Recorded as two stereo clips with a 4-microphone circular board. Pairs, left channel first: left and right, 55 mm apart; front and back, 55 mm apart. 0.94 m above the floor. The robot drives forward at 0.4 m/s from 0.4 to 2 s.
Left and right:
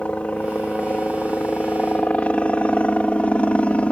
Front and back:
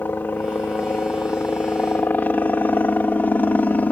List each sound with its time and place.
0.0 s a helicopter: 35° left